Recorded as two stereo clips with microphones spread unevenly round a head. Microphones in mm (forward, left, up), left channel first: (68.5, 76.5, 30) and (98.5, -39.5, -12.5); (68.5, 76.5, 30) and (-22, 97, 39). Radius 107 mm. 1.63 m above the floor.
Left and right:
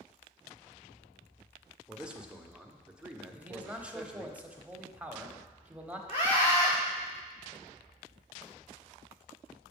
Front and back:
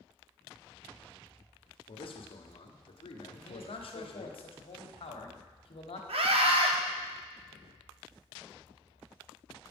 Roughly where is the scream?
Behind.